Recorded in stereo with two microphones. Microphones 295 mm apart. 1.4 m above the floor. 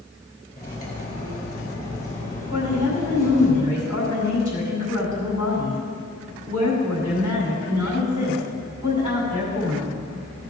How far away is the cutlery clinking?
About 3.5 m.